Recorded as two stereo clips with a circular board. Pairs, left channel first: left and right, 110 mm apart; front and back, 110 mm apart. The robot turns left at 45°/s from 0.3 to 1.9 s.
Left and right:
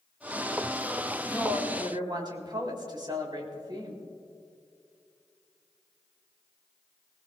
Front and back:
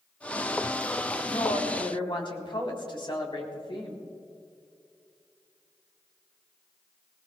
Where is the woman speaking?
15° right, 3.5 m; by 4.0 s 40° right, 3.5 m.